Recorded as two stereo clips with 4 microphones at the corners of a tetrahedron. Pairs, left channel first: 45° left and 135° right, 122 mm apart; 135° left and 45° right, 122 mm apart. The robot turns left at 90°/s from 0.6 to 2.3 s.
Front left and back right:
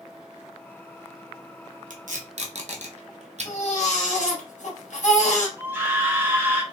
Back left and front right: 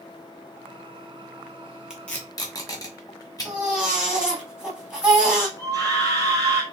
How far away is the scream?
About 1.5 m.